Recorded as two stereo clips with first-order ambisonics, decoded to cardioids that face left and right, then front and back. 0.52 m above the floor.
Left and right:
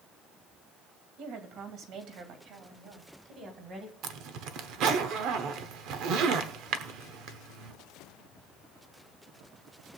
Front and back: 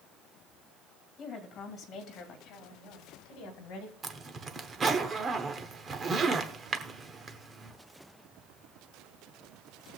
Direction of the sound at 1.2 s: 60° right.